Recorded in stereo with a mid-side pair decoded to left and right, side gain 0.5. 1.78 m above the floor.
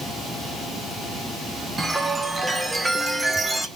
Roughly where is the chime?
Ahead.